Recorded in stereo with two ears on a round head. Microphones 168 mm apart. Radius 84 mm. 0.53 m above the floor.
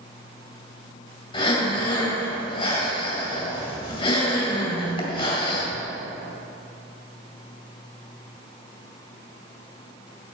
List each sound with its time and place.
1.3 s breathing: 30° left (ahead or behind), 2.5 m